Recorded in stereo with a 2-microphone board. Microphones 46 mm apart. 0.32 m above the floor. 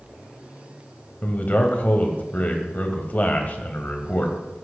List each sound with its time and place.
1.2 s a man speaking: 35° left (ahead or behind), 1.5 m